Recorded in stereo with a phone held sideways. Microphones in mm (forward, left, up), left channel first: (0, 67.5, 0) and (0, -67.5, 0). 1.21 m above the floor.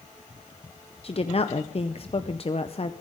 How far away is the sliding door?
I don't hear a sliding door.